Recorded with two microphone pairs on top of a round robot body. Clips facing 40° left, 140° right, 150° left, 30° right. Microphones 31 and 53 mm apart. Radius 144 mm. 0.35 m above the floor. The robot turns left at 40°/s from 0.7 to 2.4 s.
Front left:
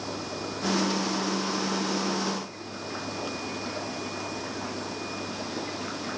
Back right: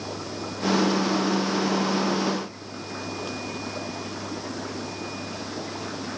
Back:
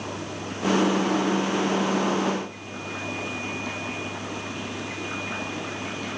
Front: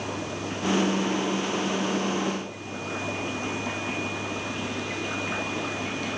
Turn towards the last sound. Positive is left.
No sound to turn to.